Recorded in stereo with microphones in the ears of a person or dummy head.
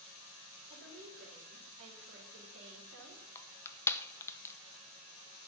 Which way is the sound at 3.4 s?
15° left (ahead or behind).